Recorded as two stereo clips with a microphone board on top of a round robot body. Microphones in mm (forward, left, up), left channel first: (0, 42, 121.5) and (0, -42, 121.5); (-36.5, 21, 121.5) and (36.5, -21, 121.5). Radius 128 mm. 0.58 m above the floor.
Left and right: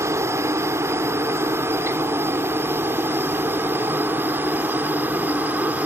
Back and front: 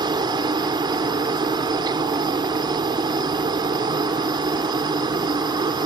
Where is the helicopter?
40° right; by 5.9 s 25° right.